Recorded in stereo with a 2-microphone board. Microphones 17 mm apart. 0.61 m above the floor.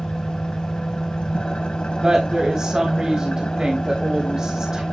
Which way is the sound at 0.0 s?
80° left.